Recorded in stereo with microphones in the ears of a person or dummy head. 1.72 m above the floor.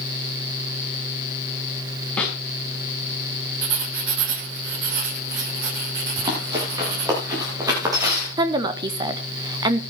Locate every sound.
2.2 s a snare drum: 5° left (ahead or behind), 5.5 m
3.6 s writing: 65° right (ahead or behind), 2.5 m
6.2 s running footsteps: 30° right (ahead or behind), 8 m; by 8.3 s 20° right (ahead or behind), 8 m
8.4 s a woman speaking: 30° right (ahead or behind), 1.5 m